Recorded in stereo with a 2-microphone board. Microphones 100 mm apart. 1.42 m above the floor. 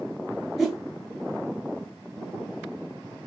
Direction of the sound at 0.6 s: Centre (ahead or behind).